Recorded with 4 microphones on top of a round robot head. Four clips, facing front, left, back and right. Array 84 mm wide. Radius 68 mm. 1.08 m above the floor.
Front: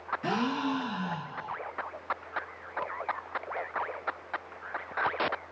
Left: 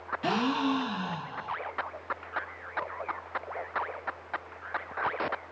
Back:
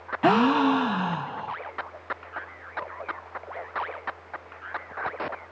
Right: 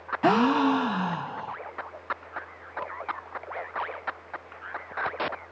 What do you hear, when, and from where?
0.2 s a gasp: 145° right, 0.6 m